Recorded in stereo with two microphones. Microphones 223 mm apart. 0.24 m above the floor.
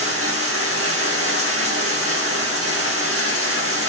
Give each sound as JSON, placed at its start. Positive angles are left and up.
{"t": 0.0, "sound": "running water", "side_deg": -80, "distance_m": 2.5}